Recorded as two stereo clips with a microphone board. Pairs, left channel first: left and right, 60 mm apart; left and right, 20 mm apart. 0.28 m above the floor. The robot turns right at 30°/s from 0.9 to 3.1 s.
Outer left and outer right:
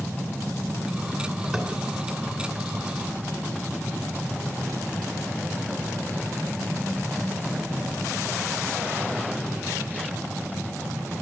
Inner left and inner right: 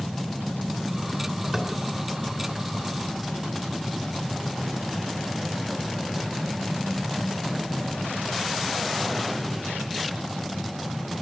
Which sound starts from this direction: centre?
Tapping, at 1.5 s.